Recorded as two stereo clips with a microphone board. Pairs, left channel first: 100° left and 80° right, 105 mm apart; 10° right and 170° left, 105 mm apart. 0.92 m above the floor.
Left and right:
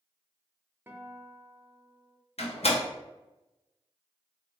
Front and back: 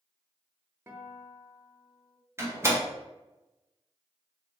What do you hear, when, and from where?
0.9 s a guitar: 140° right, 0.6 m
2.4 s a door slam: 105° left, 0.9 m